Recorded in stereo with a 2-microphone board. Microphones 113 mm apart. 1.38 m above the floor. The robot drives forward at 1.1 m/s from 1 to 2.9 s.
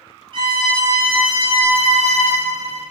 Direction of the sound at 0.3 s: 40° right (ahead or behind).